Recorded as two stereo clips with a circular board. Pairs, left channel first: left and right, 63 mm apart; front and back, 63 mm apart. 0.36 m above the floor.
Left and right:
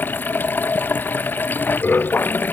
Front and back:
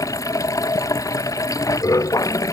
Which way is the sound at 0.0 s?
30° left.